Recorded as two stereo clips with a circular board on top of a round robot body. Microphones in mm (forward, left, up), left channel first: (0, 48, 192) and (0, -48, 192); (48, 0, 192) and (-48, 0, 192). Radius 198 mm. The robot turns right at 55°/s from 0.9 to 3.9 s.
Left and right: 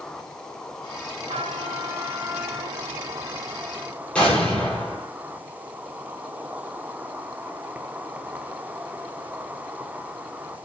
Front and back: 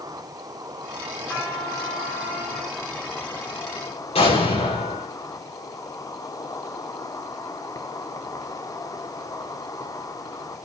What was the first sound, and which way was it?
An insect, 170° left.